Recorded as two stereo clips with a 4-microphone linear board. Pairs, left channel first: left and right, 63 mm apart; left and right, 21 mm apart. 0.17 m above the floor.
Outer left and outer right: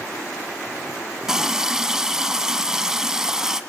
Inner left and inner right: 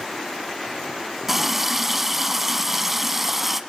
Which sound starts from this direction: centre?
A running tap, at 1.3 s.